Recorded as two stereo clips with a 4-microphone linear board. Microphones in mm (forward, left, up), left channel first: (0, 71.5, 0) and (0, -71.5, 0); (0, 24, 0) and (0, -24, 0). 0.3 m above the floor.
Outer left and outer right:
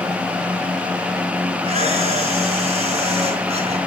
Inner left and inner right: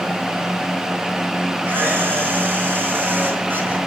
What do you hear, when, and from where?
1.6 s a camera shutter: 45° right (ahead or behind), 4 m